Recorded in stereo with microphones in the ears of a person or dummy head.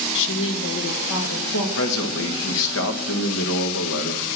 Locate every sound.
0.1 s a woman speaking: 65° left (ahead or behind), 0.8 m; by 1.7 s 80° left, 3 m
1.8 s a man speaking: 75° left (ahead or behind), 1.7 m